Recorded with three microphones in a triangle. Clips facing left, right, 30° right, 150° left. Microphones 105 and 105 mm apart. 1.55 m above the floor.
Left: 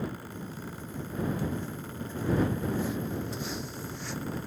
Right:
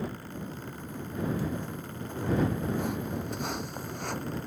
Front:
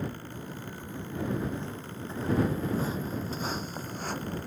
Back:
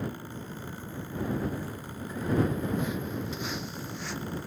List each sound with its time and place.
0.3 s footsteps: 105° right; by 4.5 s 65° right